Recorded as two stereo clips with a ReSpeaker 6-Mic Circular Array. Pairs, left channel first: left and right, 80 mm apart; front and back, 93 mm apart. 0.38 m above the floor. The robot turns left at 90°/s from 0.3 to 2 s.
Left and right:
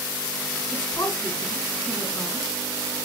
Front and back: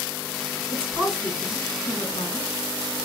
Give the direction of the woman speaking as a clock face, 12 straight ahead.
8 o'clock.